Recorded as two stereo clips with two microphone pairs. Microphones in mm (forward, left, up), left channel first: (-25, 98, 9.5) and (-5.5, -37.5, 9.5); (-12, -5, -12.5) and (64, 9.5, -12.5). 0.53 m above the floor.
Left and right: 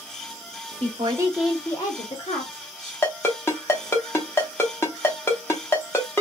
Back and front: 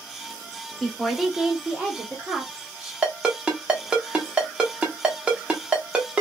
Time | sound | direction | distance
0.8 | a woman speaking | 85° right | 0.9 m
3.0 | a ringtone | 60° left | 0.7 m